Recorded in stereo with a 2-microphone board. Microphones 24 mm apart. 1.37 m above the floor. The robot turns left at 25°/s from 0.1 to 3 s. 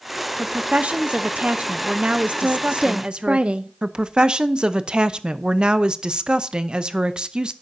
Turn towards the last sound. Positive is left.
turn(degrees=-45)  # may be behind; listen again after turning